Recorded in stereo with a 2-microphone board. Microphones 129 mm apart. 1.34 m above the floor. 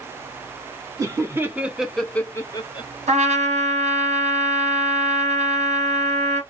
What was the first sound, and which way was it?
Laughter, 25° right (ahead or behind).